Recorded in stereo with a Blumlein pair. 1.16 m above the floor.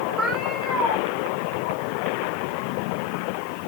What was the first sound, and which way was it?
A cat meowing, 5° right.